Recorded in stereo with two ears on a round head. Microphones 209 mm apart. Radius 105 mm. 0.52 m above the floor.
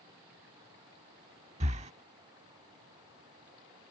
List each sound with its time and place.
1.6 s breathing: 30° right (ahead or behind)